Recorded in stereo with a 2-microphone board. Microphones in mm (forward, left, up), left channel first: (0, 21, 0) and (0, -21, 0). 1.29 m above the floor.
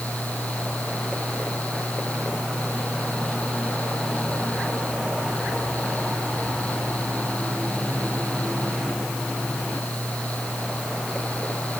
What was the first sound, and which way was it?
Only background noise.